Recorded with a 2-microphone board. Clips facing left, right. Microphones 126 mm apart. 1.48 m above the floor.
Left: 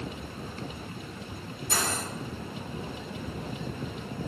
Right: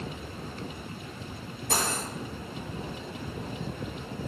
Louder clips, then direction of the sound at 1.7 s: Right 1 dB; 65° right (ahead or behind).